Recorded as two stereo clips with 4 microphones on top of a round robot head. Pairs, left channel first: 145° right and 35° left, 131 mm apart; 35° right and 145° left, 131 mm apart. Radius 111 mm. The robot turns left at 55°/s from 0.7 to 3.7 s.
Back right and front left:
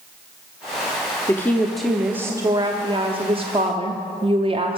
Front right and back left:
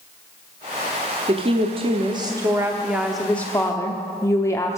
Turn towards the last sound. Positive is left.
turn(degrees=20)